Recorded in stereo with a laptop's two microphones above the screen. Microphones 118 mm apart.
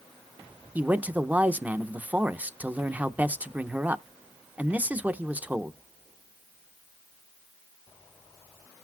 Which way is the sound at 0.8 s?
15° right (ahead or behind).